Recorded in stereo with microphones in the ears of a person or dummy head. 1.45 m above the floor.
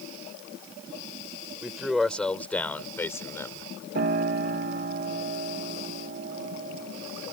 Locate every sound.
1.6 s a man speaking: centre (ahead or behind); by 3.7 s 15° left (ahead or behind)
4.0 s a piano: 50° right (ahead or behind)